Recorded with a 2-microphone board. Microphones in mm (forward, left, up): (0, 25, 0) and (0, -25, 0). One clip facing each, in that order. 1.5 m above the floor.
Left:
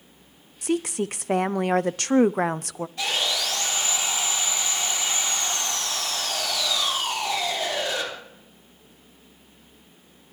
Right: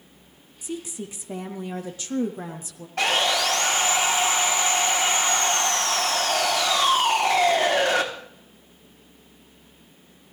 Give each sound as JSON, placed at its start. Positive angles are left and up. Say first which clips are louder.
{"t": 0.6, "sound": "a woman speaking", "louder": "left 8 dB", "side_deg": 65, "distance_m": 0.6}
{"t": 3.0, "sound": "sawing", "louder": "right 6 dB", "side_deg": -60, "distance_m": 3.0}